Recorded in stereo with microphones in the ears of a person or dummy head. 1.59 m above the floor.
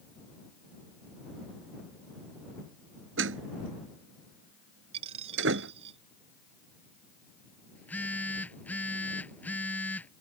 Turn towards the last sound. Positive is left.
turn(degrees=10)  # may be behind; listen again after turning